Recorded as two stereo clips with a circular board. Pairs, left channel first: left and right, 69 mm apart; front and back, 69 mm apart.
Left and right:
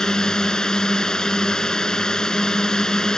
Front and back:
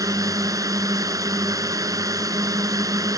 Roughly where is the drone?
Behind.